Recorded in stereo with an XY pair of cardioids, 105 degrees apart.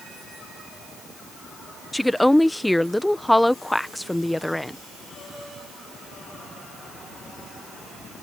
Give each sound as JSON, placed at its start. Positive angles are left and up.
{"t": 1.9, "sound": "a woman speaking", "azimuth_deg": 5}